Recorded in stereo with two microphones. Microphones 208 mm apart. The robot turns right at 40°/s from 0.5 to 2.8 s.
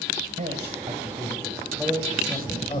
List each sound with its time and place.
0.4 s a man speaking: 50° right, 2 m; by 2.8 s 40° left, 2 m